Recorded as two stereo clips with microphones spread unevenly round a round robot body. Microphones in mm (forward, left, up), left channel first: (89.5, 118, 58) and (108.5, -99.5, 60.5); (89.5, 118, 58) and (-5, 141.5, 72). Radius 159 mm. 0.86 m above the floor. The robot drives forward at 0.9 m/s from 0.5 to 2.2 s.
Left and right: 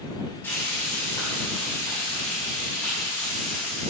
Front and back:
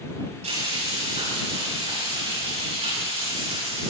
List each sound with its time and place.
0.4 s frying: 175° left, 7.5 m; by 3.9 s straight behind, 9 m